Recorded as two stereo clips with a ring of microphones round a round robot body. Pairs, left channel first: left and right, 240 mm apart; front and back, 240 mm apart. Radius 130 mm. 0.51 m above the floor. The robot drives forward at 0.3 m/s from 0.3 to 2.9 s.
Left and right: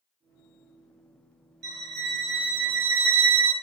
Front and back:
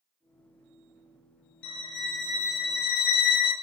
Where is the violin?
40° right, 1.3 m; by 3.5 s 55° right, 1.0 m.